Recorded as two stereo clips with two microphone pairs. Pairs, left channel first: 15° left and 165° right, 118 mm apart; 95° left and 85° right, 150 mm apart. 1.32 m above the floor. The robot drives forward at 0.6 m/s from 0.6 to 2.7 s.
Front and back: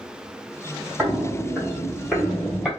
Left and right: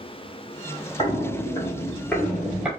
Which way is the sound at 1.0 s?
110° left.